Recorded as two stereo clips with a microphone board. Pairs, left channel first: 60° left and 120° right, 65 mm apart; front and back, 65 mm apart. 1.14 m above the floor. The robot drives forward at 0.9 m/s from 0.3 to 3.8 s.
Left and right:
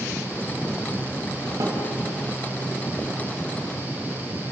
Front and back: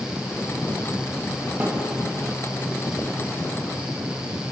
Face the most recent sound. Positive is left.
turn(degrees=-150)